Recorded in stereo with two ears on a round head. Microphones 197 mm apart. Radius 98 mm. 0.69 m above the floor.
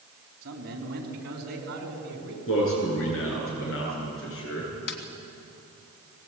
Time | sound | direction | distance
0.4 | a man speaking | 45° right (ahead or behind) | 4.5 m
2.5 | a man speaking | 70° left (ahead or behind) | 9.5 m
4.9 | a snare drum | 60° left (ahead or behind) | 2.5 m